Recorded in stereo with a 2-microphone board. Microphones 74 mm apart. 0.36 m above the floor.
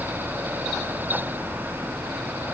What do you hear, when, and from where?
Only background noise.